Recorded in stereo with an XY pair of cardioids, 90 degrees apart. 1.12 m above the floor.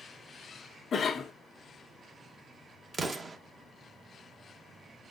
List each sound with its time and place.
0.9 s a cough: 55° left, 0.9 m
2.9 s an explosion: 40° right, 1.0 m